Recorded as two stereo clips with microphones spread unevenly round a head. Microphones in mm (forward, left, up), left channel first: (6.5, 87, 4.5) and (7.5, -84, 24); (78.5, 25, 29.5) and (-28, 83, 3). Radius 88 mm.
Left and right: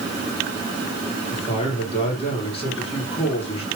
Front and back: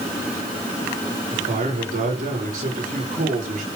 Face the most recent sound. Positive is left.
turn(degrees=150)